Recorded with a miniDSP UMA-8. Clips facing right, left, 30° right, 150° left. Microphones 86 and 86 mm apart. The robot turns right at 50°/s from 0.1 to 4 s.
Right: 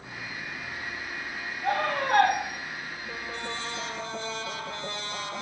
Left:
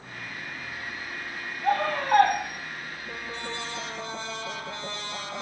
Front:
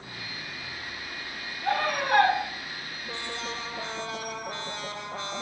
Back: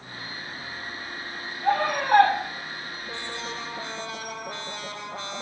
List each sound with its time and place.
1.6 s a scream: 155° right, 3.5 m; by 2.4 s 120° right, 3.5 m